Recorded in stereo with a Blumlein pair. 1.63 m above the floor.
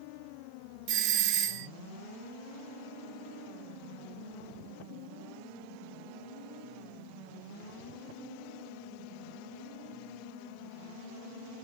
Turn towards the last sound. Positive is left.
turn(degrees=-40)